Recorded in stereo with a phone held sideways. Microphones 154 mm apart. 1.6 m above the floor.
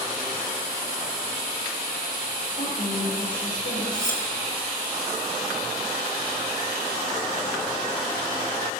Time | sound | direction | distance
2.5 | a woman speaking | 55° left (ahead or behind) | 7 m
3.9 | cutlery clinking | 25° left (ahead or behind) | 1.7 m